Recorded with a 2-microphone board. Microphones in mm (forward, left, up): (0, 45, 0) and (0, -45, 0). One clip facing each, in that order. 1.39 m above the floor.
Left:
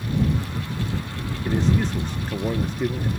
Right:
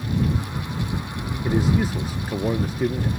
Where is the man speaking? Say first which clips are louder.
Right 1 dB; 10° right (ahead or behind).